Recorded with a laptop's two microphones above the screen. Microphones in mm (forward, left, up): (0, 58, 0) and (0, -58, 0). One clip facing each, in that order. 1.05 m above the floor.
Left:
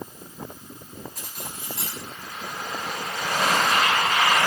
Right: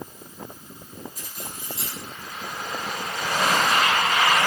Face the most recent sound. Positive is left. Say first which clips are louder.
# even
turn(degrees=80)